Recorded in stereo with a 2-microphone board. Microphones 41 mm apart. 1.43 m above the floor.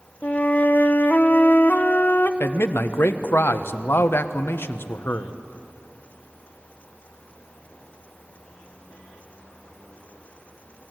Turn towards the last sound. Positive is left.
turn(degrees=70)  # may be behind; listen again after turning